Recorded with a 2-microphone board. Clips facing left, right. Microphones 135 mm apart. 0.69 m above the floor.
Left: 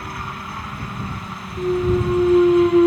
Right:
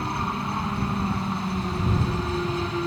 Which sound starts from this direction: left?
A clunk, at 1.6 s.